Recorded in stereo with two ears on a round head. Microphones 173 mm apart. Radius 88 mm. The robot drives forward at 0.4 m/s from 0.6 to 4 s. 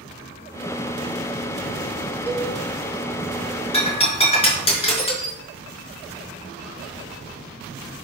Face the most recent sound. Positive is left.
turn(degrees=30)  # may be behind; listen again after turning